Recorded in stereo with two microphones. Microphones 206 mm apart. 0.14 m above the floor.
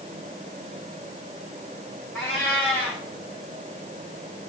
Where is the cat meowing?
5° left (ahead or behind), 7 m.